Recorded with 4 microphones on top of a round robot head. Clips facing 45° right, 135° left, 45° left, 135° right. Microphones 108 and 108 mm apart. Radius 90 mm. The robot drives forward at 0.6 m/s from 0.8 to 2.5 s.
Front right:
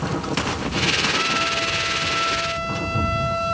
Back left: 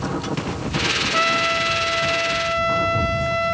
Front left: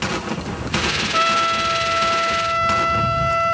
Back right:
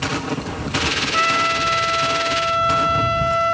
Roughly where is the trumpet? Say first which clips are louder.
Back left 3 dB, front left 1 dB; left.